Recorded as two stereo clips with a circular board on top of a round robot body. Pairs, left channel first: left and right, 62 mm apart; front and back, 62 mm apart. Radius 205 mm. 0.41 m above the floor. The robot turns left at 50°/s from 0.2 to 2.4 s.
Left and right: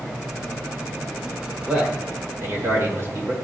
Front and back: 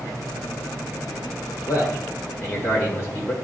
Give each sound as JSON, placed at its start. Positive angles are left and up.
{"t": 1.7, "sound": "a man speaking", "azimuth_deg": -10, "distance_m": 2.5}